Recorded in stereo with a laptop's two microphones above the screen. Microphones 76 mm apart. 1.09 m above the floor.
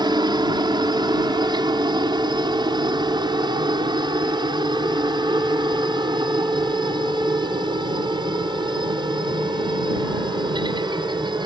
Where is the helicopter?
65° right (ahead or behind); by 11.5 s 70° right (ahead or behind).